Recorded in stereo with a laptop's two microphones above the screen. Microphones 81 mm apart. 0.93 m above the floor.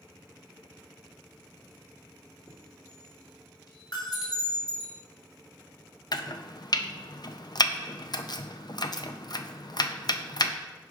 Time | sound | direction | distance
2.5 | a chime | 55° left (ahead or behind) | 2 m
3.9 | a bell | 50° left (ahead or behind) | 3.5 m
6.1 | chopping | 55° left (ahead or behind) | 0.5 m